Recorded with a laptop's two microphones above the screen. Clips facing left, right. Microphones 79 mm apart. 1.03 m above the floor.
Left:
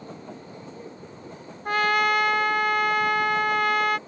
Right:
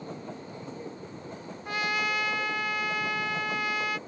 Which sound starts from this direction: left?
A trumpet, at 1.6 s.